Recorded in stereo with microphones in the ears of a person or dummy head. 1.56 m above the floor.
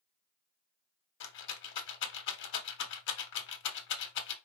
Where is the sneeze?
No sneeze in this recording.